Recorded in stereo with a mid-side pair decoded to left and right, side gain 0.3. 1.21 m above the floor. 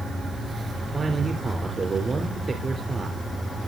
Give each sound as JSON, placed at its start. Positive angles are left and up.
{"t": 0.9, "sound": "a man speaking", "azimuth_deg": -45, "distance_m": 3.5}